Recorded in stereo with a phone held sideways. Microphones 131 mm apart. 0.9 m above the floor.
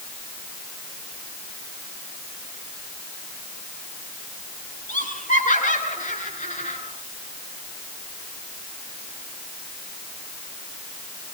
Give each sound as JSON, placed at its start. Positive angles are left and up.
{"t": 4.9, "sound": "laughter", "side_deg": 85, "distance_m": 9.5}